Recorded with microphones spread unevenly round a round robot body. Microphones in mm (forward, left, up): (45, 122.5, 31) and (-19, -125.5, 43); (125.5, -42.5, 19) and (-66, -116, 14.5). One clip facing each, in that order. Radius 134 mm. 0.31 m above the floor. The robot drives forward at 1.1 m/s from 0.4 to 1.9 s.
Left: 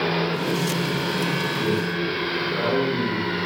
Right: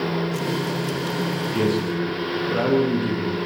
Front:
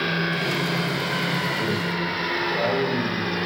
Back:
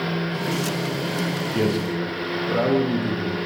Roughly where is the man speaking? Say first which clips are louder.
Right 4 dB, back 8 dB; behind right.